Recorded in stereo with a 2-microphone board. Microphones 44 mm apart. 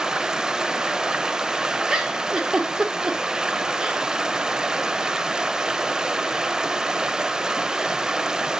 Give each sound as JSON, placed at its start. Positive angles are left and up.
{"t": 0.0, "sound": "running water", "side_deg": -15, "distance_m": 0.7}
{"t": 1.9, "sound": "a giggle", "side_deg": -15, "distance_m": 2.0}